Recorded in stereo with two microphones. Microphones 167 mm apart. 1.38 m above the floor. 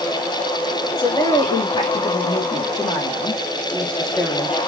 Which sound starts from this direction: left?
A woman speaking, at 1.0 s.